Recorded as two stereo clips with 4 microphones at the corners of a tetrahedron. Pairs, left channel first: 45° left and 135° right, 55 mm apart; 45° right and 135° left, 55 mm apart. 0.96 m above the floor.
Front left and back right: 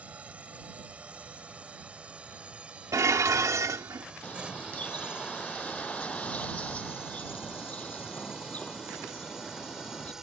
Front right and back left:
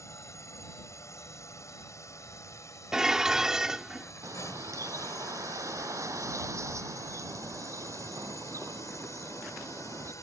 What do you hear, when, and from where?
0.0 s a drone: 70° right; by 10.2 s 55° right
2.9 s dishes clattering: 145° right
4.2 s a bird: 110° left